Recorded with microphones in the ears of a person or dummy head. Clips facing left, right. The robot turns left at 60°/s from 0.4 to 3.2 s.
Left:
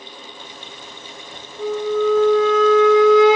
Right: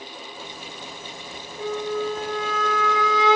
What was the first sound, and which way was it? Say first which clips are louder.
A flute: left 7 dB; 5° right (ahead or behind).